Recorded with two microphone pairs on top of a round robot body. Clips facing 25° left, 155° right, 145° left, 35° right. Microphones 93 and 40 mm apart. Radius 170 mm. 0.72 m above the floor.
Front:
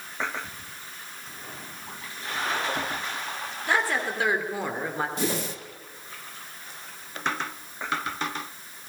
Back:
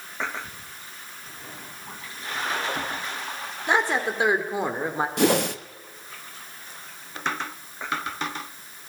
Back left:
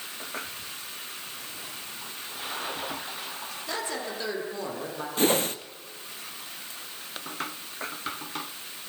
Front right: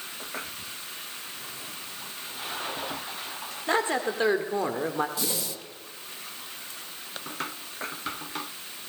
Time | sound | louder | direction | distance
3.7 | a woman speaking | back 3 dB, front right 8 dB | 85° right | 2.5 m
5.2 | a whoosh | back 8 dB, back left 9 dB | 165° right | 1.1 m